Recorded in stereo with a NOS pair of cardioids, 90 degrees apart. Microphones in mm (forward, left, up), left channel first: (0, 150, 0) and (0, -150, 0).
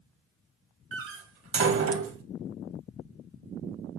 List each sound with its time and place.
0.9 s a door slam: 50° right, 1.8 m